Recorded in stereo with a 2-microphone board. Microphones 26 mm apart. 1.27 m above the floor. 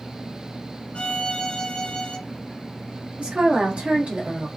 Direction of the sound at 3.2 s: 80° right.